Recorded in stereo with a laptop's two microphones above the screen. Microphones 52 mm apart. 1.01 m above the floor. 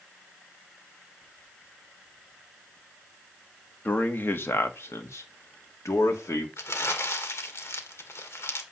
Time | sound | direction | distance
3.9 | a man speaking | 35° left (ahead or behind) | 1.5 m
6.6 | crumpling | 60° left (ahead or behind) | 1.6 m